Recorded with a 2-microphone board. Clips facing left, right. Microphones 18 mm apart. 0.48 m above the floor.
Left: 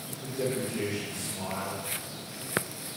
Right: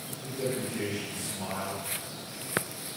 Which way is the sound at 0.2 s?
40° left (ahead or behind).